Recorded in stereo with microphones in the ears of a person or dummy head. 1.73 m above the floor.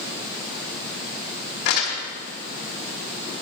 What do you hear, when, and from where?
1.6 s crumpling: 50° left (ahead or behind), 2 m